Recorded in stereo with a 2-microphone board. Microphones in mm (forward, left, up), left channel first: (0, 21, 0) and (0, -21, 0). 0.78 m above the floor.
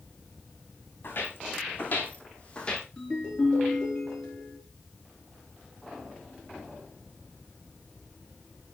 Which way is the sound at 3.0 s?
20° left (ahead or behind).